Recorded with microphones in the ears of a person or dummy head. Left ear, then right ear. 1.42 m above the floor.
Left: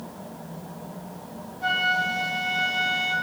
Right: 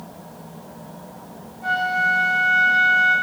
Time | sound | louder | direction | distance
1.6 | a flute | right 3 dB | 60° left (ahead or behind) | 1.5 m